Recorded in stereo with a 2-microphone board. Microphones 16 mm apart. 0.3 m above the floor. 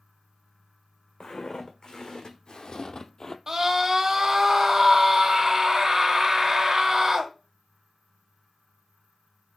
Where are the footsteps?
80° left, 1.5 m; by 3.4 s 40° left (ahead or behind), 0.5 m.